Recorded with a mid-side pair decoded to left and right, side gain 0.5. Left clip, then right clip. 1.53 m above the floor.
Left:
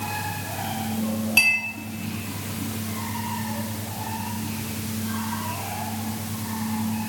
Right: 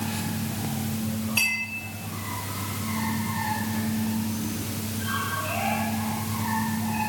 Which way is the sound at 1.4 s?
50° left.